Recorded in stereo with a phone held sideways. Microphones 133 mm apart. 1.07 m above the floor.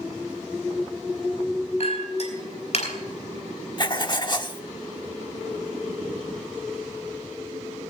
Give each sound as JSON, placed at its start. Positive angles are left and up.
{"t": 1.8, "sound": "a clink", "side_deg": 55, "distance_m": 4.5}
{"t": 3.8, "sound": "writing", "side_deg": 35, "distance_m": 1.1}